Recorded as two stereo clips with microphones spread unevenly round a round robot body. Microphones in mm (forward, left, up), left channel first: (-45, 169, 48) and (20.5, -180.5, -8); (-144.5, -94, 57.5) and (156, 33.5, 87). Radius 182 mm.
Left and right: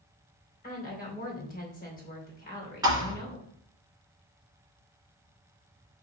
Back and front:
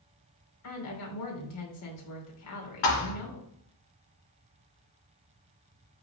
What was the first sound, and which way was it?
A woman speaking, 170° left.